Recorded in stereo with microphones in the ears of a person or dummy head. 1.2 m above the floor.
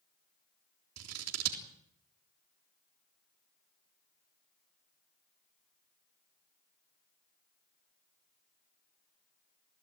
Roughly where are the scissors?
Right.